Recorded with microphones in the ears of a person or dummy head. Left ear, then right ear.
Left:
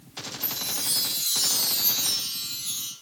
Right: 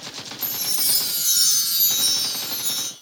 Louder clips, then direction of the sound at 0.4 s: Right 5 dB; 50° right (ahead or behind).